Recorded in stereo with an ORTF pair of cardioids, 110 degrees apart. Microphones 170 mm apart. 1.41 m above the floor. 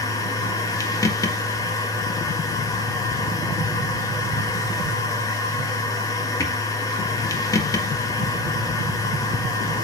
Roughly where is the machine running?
Ahead.